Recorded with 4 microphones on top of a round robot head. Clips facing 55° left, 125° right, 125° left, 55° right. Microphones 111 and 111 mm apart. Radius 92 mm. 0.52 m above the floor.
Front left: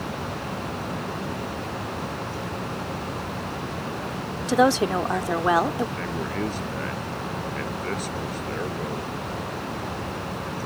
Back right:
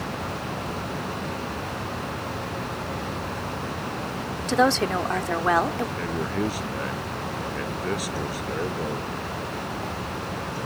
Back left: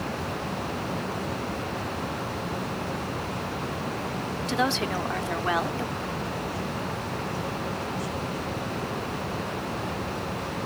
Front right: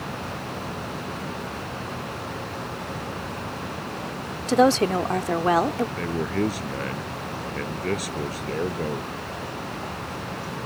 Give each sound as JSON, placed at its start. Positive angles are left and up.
{"t": 4.5, "sound": "a woman speaking", "azimuth_deg": -20}
{"t": 6.0, "sound": "a man speaking", "azimuth_deg": -45}